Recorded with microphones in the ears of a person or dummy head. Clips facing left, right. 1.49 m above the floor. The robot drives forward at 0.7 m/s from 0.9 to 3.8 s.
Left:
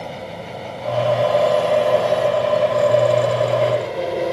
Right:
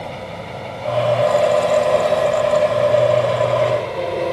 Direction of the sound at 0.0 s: Centre (ahead or behind).